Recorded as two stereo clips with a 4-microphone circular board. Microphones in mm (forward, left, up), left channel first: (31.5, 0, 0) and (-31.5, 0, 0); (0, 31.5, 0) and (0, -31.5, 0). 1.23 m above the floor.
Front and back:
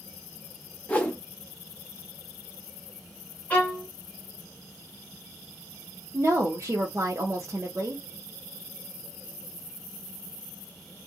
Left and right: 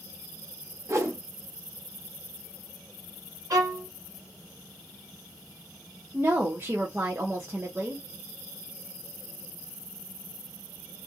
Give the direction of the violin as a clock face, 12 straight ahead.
2 o'clock.